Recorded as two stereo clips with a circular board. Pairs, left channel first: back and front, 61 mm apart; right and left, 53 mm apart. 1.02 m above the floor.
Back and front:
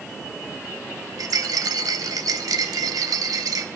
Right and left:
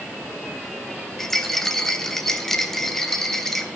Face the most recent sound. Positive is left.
turn(degrees=-5)